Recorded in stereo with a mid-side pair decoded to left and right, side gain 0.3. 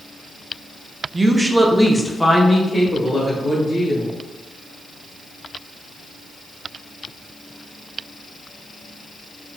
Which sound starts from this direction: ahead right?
A woman speaking, at 1.1 s.